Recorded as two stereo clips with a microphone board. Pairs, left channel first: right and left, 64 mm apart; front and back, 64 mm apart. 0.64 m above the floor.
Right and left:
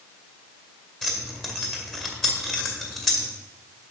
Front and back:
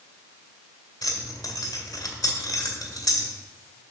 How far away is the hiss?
No hiss in this recording.